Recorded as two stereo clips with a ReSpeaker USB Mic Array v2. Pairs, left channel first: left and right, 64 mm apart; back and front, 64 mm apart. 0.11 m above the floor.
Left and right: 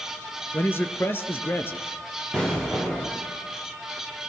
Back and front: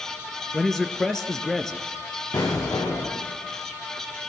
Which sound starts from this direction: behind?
An explosion, at 2.3 s.